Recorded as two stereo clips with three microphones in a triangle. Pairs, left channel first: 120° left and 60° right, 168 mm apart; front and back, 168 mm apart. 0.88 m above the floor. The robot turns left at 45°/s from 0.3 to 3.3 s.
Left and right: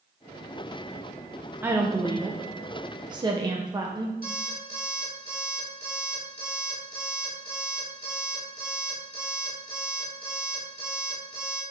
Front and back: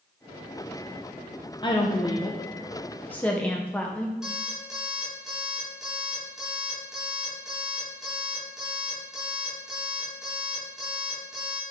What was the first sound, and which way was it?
A woman speaking, 5° left.